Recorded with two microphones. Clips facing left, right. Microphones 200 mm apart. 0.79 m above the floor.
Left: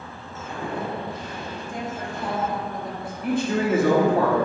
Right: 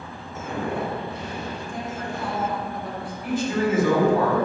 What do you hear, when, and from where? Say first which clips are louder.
0.4 s footsteps: right 3 dB; 50° right (ahead or behind), 1.2 m; by 2.6 s 55° right (ahead or behind), 3 m
1.7 s a woman speaking: left 2 dB; 20° left (ahead or behind), 1.6 m
3.2 s a man speaking: left 1 dB; 55° left (ahead or behind), 1.8 m